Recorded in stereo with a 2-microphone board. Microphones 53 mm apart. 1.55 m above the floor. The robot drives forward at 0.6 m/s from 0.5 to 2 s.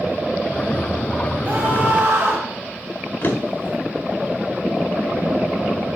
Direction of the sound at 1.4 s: 40° right (ahead or behind).